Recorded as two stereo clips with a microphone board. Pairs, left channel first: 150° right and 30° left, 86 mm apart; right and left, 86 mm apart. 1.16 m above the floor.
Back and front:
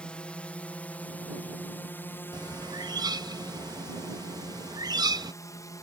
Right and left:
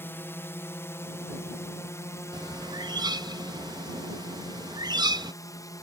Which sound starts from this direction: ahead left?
A bird, at 2.3 s.